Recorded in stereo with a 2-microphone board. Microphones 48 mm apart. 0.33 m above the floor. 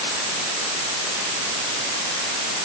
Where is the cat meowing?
No cat meowing in this recording.